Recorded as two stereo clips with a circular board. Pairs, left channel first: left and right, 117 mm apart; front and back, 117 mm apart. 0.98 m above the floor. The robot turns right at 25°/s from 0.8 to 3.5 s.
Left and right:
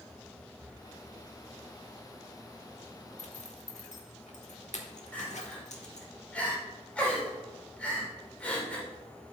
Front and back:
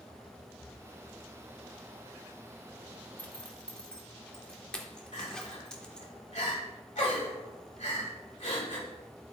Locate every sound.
0.6 s breathing: 45° right, 0.7 m
3.2 s a zipper: 75° left, 1.3 m; by 6.1 s 85° left, 1.3 m
5.1 s crying: 10° left, 2 m